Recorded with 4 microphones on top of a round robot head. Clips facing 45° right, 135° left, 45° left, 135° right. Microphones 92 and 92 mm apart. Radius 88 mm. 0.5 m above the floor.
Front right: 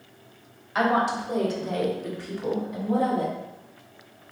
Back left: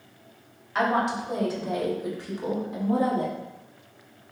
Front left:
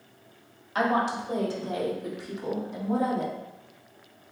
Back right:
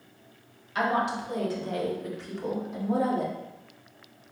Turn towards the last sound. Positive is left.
turn(degrees=155)